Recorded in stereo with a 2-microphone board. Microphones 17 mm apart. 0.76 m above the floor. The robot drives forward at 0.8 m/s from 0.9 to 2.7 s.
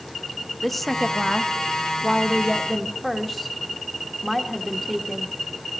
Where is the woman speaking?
10° left (ahead or behind), 1.0 m; by 5.4 s 5° left (ahead or behind), 1.2 m.